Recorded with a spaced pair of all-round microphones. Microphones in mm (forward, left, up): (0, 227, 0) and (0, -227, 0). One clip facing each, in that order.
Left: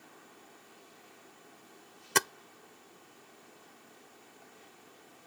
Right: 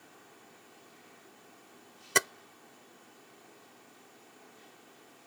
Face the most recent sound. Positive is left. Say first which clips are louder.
# right 1 dB
turn(degrees=10)  # may be behind; listen again after turning